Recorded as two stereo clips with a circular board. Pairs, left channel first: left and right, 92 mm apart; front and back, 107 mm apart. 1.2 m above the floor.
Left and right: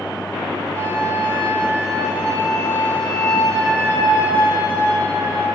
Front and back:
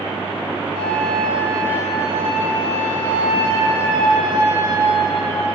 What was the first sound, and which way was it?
A flute, 145° right.